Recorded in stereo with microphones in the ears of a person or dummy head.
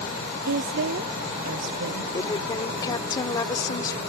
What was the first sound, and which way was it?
A woman speaking, 60° right (ahead or behind).